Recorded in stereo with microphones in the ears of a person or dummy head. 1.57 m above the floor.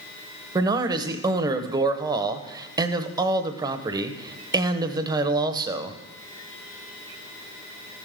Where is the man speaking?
25° right (ahead or behind), 0.8 m.